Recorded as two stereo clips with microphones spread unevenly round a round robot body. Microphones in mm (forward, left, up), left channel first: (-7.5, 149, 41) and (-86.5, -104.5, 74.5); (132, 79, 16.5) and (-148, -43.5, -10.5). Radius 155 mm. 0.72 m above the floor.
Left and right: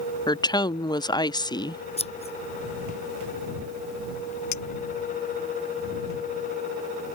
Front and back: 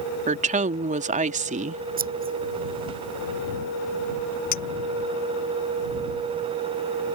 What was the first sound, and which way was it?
A woman speaking, 140° left.